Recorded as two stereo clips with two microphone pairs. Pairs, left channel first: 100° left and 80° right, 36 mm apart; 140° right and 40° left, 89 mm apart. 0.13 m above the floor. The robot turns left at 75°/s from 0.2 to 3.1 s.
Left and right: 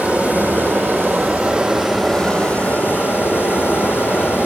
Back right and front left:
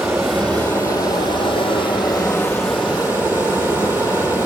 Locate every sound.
0.0 s running water: 40° right, 2.5 m; by 4.5 s 100° left, 2.5 m